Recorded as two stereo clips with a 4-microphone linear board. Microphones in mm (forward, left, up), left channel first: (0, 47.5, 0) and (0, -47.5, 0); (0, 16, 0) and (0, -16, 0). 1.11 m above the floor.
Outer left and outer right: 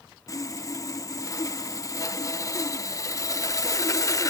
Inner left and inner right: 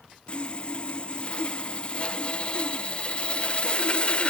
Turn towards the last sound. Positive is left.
turn(degrees=35)  # may be behind; listen again after turning